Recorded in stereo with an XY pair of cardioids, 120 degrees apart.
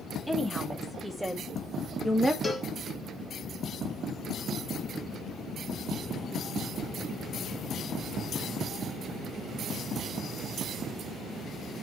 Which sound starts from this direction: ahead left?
A cowbell, at 2.4 s.